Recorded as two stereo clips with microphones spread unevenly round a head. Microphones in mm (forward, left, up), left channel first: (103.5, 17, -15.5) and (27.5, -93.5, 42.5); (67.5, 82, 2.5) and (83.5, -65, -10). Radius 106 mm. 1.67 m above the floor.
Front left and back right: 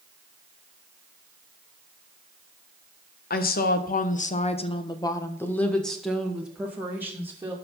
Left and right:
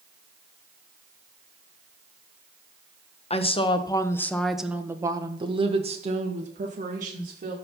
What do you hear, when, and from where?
3.3 s a woman speaking: 50° left, 1.5 m; by 7.5 s 55° right, 3 m